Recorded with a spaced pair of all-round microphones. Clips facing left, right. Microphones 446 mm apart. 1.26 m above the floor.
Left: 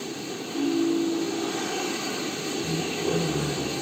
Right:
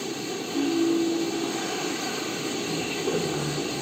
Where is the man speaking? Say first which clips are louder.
Left 2 dB; 70° left (ahead or behind), 4 m.